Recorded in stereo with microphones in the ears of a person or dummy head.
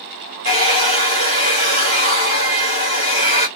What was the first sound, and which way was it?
A hair dryer, 25° left (ahead or behind).